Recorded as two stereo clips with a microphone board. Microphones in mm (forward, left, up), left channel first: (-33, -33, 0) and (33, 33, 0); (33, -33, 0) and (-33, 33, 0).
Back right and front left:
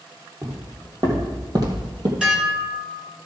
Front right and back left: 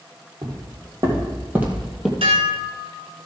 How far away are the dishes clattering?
About 1.5 m.